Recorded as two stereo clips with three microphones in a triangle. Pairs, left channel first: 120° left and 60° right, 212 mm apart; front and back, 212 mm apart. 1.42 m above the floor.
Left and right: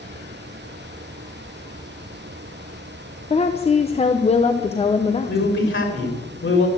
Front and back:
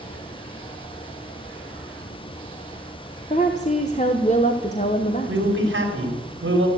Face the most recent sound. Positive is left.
turn(degrees=150)